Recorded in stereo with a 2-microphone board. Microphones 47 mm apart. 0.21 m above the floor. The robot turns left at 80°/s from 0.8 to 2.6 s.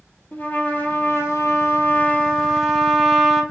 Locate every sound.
0.3 s a trumpet: 140° left, 1.2 m; by 3.4 s 5° right, 1.2 m